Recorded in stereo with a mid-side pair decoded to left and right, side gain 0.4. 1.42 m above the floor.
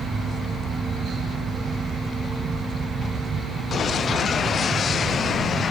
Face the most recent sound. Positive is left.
turn(degrees=-60)